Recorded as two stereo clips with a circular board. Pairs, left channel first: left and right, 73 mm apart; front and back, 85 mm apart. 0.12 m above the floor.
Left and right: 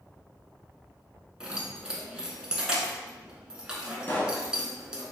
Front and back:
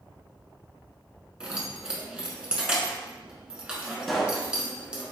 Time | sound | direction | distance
1.4 | keys jangling | 130° right | 0.8 m
4.1 | a pop | 85° left | 0.9 m